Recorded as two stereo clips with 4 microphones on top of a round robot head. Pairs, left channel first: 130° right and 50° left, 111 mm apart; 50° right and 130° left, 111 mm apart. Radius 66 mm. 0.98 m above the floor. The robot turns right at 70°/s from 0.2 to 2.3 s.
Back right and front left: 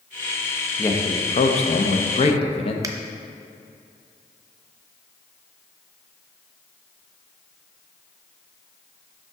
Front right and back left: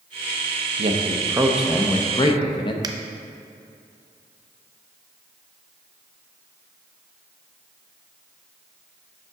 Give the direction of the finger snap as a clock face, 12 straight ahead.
9 o'clock.